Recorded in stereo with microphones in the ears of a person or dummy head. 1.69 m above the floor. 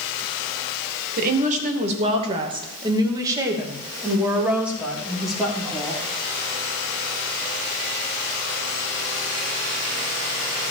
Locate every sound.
1.2 s a woman speaking: 50° right (ahead or behind), 2 m; by 6.0 s 5° left (ahead or behind), 3.5 m